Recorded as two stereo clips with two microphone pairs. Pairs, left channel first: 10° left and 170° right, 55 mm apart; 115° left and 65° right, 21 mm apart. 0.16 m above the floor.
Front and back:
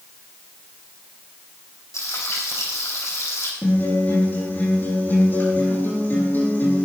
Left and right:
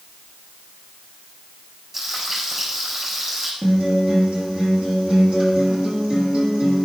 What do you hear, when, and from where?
1.9 s frying: 5° right, 4.5 m
3.6 s a guitar: 40° right, 6.5 m